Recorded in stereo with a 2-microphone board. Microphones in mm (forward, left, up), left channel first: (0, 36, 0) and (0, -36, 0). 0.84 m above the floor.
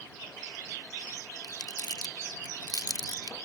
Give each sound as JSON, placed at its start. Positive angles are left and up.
{"t": 1.4, "sound": "crumpling", "side_deg": 65}